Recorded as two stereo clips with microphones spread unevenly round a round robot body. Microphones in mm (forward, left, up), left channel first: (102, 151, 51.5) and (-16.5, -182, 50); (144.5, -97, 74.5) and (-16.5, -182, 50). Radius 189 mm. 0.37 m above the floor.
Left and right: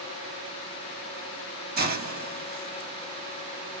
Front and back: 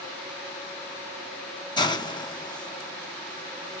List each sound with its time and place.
1.8 s a hiss: 45° right, 0.9 m